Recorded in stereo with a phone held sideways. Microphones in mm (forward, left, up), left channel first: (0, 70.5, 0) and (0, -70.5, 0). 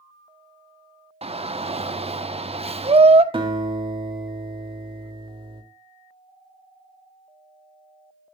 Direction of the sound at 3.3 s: 40° right (ahead or behind).